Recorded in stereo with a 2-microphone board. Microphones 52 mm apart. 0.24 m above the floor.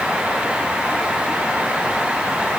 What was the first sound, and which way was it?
Only background noise.